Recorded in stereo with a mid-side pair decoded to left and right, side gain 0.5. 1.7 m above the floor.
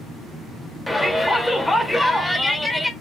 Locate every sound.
0.9 s a shout: 10° left, 1.0 m